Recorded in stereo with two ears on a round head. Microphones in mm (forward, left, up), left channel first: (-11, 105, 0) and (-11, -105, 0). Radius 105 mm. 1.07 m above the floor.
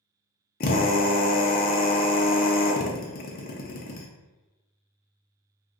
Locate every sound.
0.6 s a drill: 40° left (ahead or behind), 0.5 m